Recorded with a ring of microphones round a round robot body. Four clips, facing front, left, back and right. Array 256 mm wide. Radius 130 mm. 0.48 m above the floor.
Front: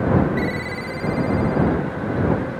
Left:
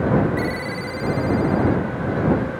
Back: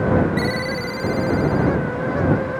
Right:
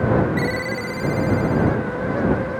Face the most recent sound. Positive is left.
turn(degrees=-145)